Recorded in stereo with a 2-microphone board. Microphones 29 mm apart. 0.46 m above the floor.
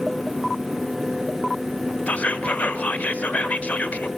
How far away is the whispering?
About 1.4 m.